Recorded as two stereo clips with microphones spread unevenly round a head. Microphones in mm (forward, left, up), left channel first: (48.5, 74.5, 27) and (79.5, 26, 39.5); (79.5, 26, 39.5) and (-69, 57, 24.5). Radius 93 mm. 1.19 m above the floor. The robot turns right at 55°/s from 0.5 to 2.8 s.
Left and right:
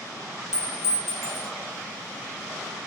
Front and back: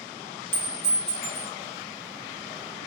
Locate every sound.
0.5 s a clink: 45° right, 0.5 m; by 1.5 s 10° left, 0.5 m